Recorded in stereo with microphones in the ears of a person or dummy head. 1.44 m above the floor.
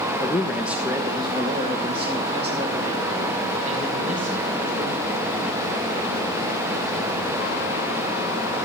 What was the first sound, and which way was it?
A man speaking, 10° left (ahead or behind).